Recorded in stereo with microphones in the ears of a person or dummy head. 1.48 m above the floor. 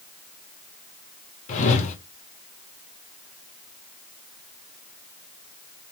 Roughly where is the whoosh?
Left.